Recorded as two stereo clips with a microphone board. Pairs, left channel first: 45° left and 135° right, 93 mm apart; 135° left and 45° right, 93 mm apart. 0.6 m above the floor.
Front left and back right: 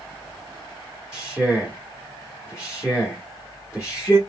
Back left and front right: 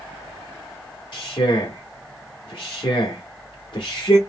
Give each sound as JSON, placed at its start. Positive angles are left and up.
{"t": 1.1, "sound": "a man speaking", "azimuth_deg": 110, "distance_m": 1.0}